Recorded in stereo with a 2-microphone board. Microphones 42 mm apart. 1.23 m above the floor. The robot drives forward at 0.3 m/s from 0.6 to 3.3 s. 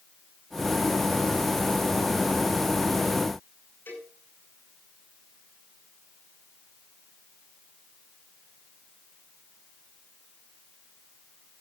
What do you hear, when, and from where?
3.9 s a cowbell: 60° left (ahead or behind), 9.5 m